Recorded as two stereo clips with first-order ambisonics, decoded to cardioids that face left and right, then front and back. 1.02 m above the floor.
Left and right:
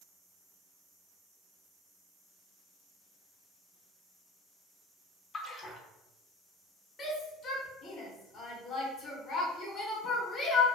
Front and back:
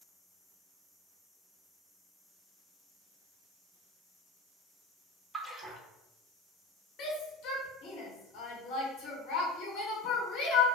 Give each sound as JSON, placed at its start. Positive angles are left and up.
{"t": 5.3, "sound": "a splash", "azimuth_deg": 120, "distance_m": 0.6}
{"t": 7.0, "sound": "a shout", "azimuth_deg": 25, "distance_m": 0.9}